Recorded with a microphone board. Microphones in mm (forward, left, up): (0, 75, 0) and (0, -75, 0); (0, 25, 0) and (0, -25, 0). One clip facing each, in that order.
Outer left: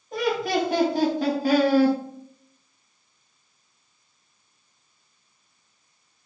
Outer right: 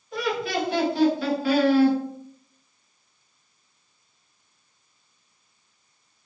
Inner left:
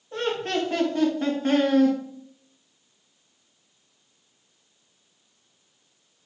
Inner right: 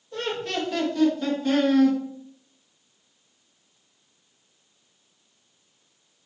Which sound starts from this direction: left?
Laughter, at 0.1 s.